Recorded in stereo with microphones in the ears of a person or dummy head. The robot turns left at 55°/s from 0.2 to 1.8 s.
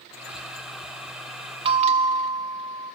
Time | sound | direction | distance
1.6 | a bell | 25° right (ahead or behind) | 0.9 m